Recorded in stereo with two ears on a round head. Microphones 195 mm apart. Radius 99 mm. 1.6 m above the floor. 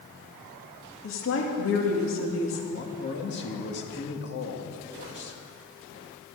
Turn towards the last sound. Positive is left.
turn(degrees=55)  # may be behind; listen again after turning